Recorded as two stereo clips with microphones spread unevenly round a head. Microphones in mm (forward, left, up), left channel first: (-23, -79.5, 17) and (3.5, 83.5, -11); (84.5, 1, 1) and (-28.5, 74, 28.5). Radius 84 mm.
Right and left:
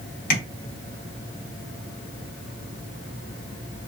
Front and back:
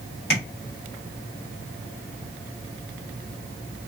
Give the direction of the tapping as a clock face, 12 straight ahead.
3 o'clock.